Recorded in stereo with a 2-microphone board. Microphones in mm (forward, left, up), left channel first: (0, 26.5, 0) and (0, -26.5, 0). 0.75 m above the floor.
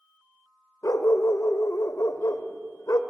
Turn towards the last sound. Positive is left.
turn(degrees=85)